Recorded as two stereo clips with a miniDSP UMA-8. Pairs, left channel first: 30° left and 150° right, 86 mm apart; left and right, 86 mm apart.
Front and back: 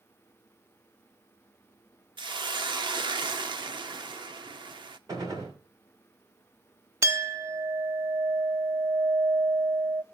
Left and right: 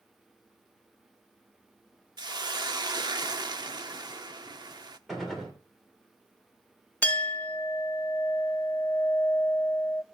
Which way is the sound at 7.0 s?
160° left.